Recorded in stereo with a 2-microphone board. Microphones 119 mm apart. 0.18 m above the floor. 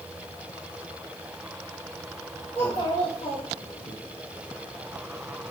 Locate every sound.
2.5 s a child speaking: 50° left (ahead or behind), 2.5 m; by 3.9 s 60° left (ahead or behind), 3.5 m